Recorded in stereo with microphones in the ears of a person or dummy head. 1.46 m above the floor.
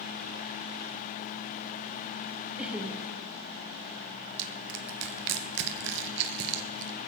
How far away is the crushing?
About 1.4 m.